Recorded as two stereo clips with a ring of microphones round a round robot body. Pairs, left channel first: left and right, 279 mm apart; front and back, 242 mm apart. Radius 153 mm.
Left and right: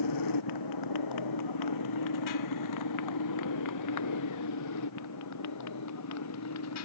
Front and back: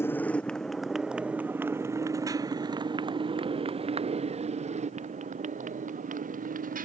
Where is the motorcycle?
80° left; by 6.9 s 125° left.